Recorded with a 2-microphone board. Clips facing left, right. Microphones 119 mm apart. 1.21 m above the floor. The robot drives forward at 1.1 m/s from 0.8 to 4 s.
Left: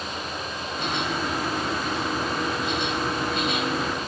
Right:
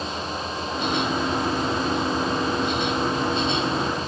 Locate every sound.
Only background noise.